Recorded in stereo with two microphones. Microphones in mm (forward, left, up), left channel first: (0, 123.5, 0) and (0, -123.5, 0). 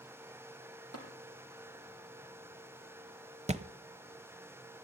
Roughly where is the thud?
Right.